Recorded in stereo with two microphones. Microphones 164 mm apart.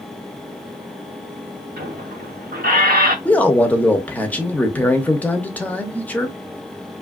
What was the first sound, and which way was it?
A squeak, 65° right (ahead or behind).